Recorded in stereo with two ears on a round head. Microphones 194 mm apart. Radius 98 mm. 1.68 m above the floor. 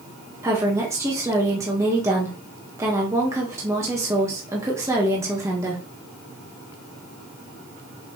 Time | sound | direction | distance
0.4 | a woman speaking | 15° right (ahead or behind) | 1.5 m